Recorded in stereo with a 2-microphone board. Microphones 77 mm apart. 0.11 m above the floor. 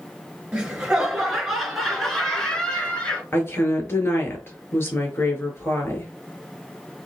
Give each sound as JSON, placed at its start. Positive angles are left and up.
{"t": 0.5, "sound": "laughter", "side_deg": -10, "distance_m": 1.9}
{"t": 3.3, "sound": "a woman speaking", "side_deg": 35, "distance_m": 1.7}